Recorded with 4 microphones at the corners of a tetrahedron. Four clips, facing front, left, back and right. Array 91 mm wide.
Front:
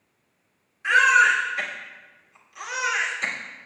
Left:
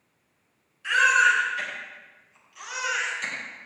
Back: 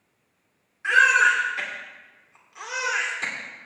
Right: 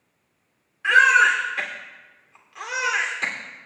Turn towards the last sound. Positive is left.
turn(degrees=-110)